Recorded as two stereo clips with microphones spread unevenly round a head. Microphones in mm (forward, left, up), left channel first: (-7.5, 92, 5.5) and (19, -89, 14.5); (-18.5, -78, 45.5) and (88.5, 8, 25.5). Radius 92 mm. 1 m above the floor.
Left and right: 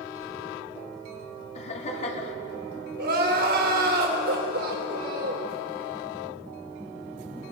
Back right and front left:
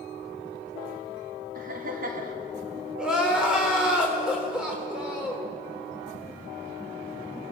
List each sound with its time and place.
1.6 s laughter: 45° left, 3 m
3.0 s crying: 45° right, 4 m